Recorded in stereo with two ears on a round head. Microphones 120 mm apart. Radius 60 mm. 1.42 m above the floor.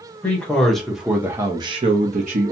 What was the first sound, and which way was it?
A man speaking, 10° left (ahead or behind).